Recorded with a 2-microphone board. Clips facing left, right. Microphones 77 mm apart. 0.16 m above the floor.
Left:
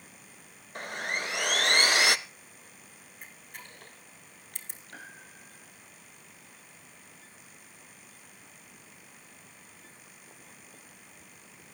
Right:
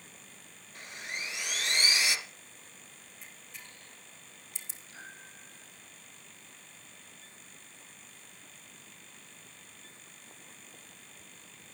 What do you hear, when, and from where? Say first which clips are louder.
0.8 s sawing: left 8 dB; 60° left (ahead or behind), 0.6 m
3.2 s a camera shutter: left 4 dB; 50° left (ahead or behind), 2.0 m
4.9 s a piano: left 2 dB; 60° left (ahead or behind), 4 m